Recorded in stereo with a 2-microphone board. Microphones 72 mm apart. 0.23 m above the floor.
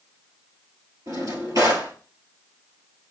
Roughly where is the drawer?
Right.